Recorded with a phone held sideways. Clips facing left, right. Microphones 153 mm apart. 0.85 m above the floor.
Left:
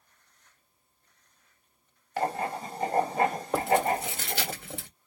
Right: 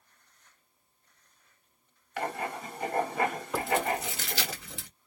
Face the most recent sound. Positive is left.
turn(degrees=50)  # may be behind; listen again after turning